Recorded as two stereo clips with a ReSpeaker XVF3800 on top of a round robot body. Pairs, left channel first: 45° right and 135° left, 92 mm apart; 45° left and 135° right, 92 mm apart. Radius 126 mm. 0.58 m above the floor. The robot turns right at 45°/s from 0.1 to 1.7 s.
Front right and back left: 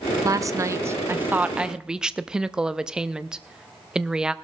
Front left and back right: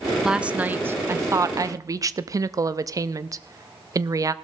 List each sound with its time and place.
0.2 s a woman speaking: 145° left, 0.7 m; by 4.3 s 150° right, 0.7 m